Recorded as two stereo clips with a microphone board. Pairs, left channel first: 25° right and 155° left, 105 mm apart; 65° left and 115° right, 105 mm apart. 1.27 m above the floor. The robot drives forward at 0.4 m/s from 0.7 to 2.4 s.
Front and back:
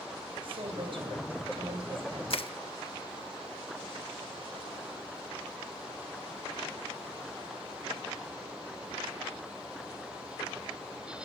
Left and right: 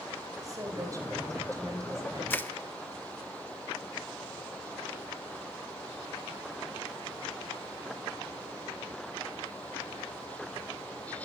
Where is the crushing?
Straight ahead, 1.3 m.